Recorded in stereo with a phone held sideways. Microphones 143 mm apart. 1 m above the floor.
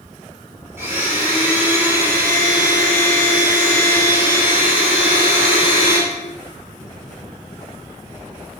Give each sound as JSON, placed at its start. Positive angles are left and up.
{"t": 0.8, "sound": "a blender", "side_deg": -15, "distance_m": 3.0}